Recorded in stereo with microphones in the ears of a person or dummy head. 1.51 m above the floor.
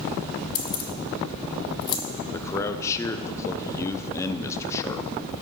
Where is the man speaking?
10° left (ahead or behind), 0.8 m.